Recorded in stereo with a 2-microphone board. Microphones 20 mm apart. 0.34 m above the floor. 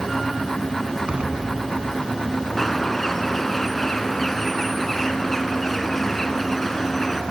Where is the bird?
10° left (ahead or behind), 2.5 m.